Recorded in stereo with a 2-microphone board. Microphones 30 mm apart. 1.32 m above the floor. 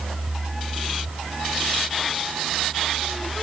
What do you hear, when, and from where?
Only background noise.